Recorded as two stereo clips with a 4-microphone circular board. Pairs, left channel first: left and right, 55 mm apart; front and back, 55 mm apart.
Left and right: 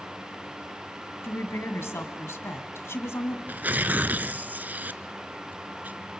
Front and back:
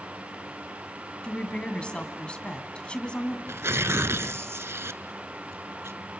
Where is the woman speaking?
65° left, 2 m.